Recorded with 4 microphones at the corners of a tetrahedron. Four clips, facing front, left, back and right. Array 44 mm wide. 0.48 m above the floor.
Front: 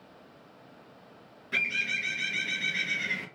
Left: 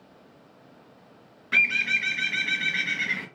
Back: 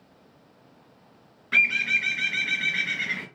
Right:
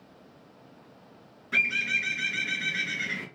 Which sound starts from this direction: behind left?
A bird, at 1.5 s.